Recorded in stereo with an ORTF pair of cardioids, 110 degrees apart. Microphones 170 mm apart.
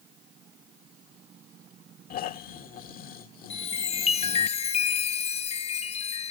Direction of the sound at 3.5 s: 35° left.